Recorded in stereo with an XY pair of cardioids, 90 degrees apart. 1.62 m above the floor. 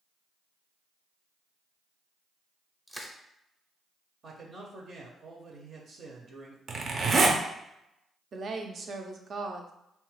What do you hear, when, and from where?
2.9 s crushing: 5° right, 0.6 m
4.2 s a man speaking: 60° right, 0.7 m
6.7 s a zipper: 55° right, 0.6 m
8.3 s a woman speaking: 55° right, 0.6 m